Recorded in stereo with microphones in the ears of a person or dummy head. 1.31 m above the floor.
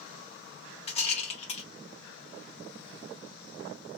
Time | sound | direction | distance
0.9 | a rattle | 40° left (ahead or behind) | 0.9 m